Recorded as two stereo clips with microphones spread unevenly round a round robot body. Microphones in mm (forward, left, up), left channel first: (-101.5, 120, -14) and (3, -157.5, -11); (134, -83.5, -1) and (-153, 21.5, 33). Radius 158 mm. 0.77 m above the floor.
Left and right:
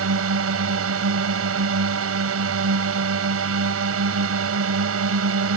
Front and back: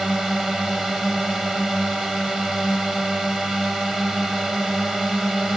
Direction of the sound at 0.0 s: 110° right.